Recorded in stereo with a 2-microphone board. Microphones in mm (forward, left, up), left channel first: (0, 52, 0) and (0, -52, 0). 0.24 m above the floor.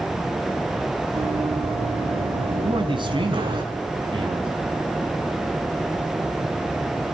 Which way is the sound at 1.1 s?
75° right (ahead or behind).